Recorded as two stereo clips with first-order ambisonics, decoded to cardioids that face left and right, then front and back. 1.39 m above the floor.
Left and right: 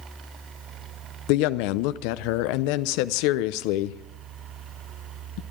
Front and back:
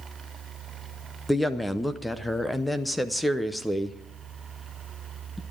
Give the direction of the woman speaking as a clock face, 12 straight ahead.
9 o'clock.